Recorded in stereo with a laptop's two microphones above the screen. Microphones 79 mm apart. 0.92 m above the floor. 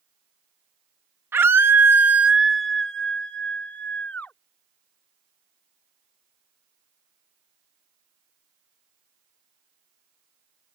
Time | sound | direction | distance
1.3 | a scream | 30° right (ahead or behind) | ?